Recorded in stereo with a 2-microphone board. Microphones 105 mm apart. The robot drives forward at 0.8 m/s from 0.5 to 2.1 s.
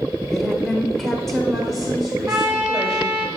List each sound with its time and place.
0.3 s a woman speaking: centre (ahead or behind), 0.9 m
2.3 s a trumpet: 20° right (ahead or behind), 1.3 m